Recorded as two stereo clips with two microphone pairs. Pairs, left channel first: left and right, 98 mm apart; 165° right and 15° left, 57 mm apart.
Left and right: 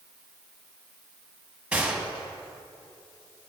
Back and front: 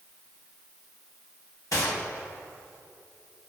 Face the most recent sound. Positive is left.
turn(degrees=-170)